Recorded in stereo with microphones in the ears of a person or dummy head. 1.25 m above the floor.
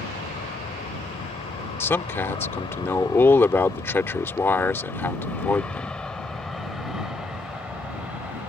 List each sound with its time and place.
0.0 s an aircraft: 35° left (ahead or behind); by 8.5 s 10° right (ahead or behind)
1.8 s a man speaking: 15° left (ahead or behind)